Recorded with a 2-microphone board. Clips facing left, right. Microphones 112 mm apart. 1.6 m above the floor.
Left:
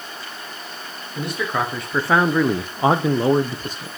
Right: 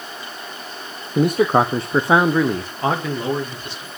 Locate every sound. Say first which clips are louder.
1.1 s a man speaking: right 9 dB; 55° right (ahead or behind), 0.9 m; by 4.0 s 50° left (ahead or behind), 1.1 m